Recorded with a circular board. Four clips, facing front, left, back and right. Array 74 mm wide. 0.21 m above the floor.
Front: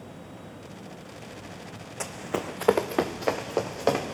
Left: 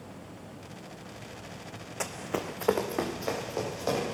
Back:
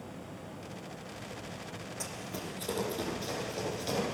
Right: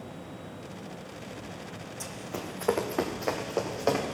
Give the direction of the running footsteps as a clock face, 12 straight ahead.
10 o'clock.